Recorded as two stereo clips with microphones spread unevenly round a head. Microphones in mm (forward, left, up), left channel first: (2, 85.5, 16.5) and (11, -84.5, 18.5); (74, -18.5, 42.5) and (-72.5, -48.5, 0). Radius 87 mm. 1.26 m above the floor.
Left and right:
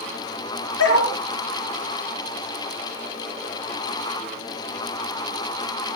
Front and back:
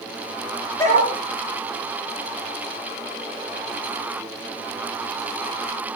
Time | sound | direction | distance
0.8 | a dog barking | 80° left | 5.5 m